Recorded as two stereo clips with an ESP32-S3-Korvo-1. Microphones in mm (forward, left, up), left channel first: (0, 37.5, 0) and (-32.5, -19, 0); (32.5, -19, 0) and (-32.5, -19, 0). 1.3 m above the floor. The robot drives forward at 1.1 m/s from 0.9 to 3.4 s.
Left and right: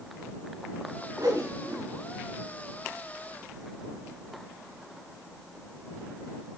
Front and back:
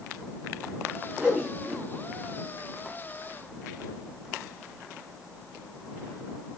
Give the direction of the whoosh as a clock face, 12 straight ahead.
3 o'clock.